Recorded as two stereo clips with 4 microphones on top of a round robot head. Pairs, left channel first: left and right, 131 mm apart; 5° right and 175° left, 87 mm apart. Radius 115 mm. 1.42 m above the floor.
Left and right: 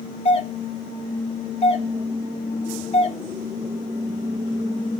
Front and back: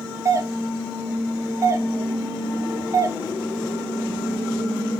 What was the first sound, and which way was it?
A doorbell, 125° left.